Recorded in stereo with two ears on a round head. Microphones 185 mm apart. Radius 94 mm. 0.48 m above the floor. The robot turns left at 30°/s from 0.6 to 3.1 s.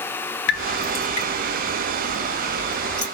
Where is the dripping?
60° left (ahead or behind), 2 m; by 3.0 s 10° right (ahead or behind), 2 m.